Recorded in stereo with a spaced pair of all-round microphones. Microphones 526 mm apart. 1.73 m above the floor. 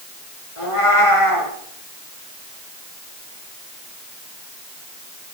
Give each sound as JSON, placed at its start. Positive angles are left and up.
{"t": 0.6, "sound": "a cat meowing", "side_deg": 75, "distance_m": 6.0}